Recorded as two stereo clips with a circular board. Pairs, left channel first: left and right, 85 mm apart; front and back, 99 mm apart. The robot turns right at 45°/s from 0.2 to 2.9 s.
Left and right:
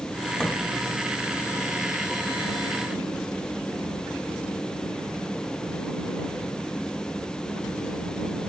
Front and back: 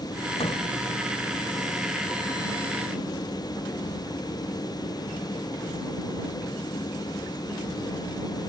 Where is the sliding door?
10° left; by 0.6 s 15° left.